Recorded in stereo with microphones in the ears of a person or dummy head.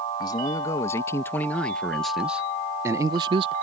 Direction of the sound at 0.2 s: 25° left (ahead or behind).